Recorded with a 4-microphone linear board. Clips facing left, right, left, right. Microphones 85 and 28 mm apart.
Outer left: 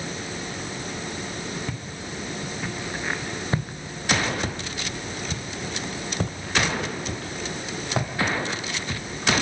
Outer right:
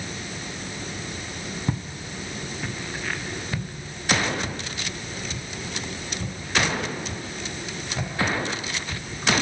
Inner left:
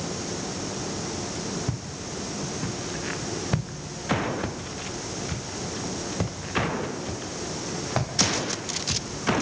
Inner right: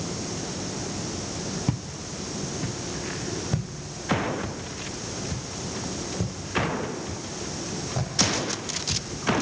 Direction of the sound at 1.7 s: 30° right (ahead or behind).